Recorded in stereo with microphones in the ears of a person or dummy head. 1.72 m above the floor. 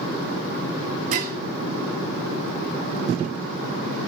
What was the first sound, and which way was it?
Dishes clattering, 40° right (ahead or behind).